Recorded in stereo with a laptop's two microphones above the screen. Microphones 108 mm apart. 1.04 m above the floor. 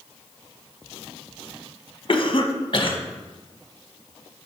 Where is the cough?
45° left (ahead or behind), 1.1 m.